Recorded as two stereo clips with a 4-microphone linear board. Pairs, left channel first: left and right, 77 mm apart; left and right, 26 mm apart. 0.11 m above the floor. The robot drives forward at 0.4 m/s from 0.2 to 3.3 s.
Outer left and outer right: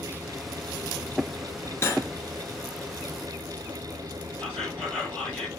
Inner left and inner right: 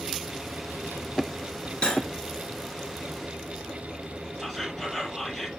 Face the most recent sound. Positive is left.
turn(degrees=15)  # may be behind; listen again after turning